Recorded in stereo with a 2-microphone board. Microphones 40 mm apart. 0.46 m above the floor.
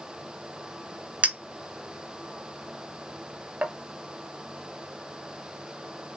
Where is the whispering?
No whispering in this recording.